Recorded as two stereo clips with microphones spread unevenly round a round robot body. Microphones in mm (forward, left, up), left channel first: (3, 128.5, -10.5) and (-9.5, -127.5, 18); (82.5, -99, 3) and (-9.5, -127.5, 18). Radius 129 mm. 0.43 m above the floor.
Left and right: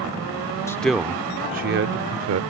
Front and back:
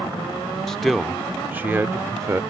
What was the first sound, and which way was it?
A man speaking, 55° left.